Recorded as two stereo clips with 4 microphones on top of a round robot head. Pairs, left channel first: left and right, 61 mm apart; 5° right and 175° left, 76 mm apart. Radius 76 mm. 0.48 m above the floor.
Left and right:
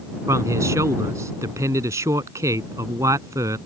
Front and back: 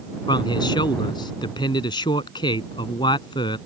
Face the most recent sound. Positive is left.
turn(degrees=-40)